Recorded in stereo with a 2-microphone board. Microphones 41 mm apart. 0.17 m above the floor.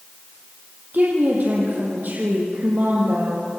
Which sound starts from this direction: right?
A woman speaking, at 0.9 s.